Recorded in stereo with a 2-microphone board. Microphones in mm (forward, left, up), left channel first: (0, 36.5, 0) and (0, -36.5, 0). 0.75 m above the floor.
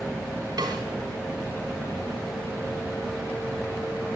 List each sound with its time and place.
0.6 s a snare drum: 80° right, 2.0 m